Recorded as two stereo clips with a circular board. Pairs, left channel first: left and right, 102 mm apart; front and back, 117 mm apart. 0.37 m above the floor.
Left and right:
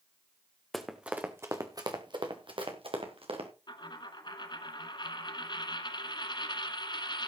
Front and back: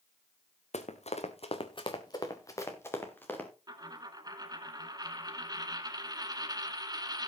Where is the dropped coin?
125° left, 1.5 m.